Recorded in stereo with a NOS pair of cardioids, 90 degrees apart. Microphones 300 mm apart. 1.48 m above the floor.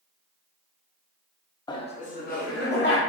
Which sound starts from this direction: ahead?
Laughter, at 1.7 s.